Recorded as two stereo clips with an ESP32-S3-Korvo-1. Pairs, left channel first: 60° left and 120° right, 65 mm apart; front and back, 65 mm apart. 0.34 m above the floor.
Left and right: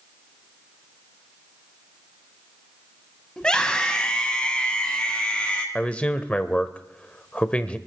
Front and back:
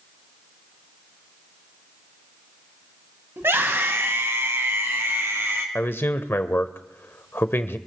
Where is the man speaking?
5° left, 1.0 m.